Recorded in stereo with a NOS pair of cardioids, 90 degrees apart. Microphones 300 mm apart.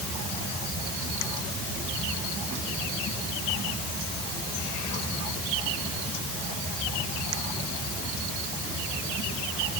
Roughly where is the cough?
I don't hear a cough.